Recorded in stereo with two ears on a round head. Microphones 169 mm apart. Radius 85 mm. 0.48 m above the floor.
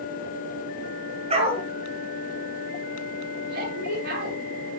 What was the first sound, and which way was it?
A dog barking, 35° right (ahead or behind).